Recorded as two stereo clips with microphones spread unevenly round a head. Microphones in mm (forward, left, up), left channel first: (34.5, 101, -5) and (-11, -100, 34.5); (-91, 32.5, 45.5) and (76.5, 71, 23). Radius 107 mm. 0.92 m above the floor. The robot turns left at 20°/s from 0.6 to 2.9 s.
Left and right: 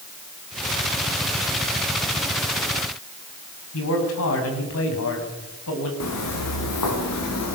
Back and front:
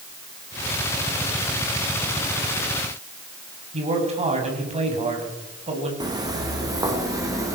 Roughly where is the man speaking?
Ahead left.